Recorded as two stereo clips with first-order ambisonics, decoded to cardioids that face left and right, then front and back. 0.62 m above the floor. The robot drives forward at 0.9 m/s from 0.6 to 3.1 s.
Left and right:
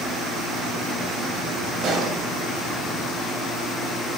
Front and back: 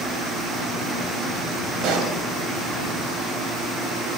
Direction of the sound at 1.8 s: 140° right.